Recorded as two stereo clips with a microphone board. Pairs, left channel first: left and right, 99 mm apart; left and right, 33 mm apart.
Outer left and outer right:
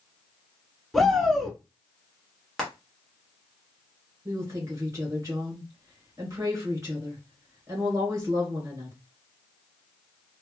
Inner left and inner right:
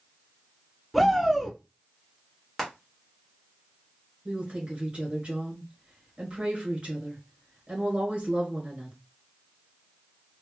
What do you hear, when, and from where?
0.9 s a shout: centre (ahead or behind), 1.6 m
2.6 s frying: centre (ahead or behind), 1.3 m
4.2 s a woman speaking: 30° right (ahead or behind), 1.7 m